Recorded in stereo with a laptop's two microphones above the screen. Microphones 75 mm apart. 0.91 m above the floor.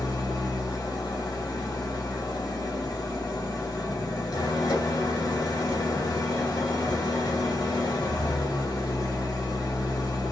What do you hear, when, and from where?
0.0 s an engine running: 60° left (ahead or behind), 1.2 m